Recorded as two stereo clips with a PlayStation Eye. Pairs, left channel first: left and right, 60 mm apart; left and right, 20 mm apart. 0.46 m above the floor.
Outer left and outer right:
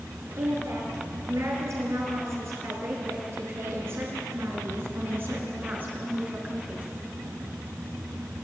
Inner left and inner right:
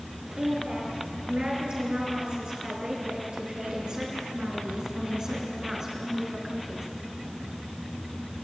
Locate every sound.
0.4 s a woman speaking: 55° right (ahead or behind), 8 m; by 6.9 s 25° right (ahead or behind), 6 m